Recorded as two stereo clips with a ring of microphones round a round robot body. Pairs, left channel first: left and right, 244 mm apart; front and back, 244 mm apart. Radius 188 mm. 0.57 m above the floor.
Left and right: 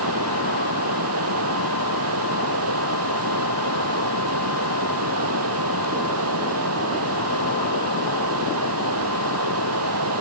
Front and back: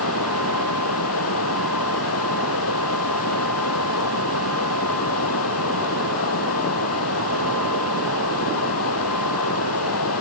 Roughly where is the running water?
Ahead right.